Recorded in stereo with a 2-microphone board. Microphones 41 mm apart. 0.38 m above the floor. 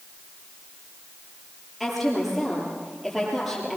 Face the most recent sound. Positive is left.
turn(degrees=0)  # may be behind; listen again after turning